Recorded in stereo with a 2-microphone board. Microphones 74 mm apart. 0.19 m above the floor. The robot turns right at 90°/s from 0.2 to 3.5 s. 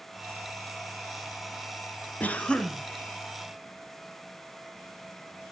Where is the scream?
No scream in this recording.